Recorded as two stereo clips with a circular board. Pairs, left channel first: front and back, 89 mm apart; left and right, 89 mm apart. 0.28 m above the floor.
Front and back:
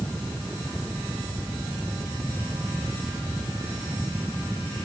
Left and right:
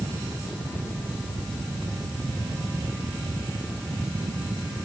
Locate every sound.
Only background noise.